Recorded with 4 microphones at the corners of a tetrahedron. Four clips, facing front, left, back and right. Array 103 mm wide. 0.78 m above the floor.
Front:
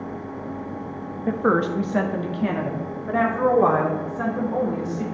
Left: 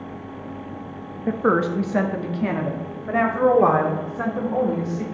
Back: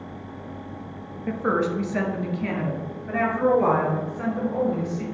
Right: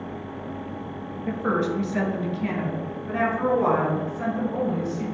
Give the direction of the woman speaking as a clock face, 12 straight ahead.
10 o'clock.